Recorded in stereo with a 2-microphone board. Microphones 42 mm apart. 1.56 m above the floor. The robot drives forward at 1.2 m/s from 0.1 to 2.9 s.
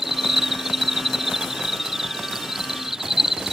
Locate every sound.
0.0 s an insect: 5° right (ahead or behind)